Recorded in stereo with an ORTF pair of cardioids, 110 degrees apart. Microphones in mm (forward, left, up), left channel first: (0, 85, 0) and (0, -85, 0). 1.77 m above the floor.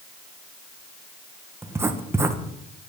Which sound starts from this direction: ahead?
Writing, at 1.6 s.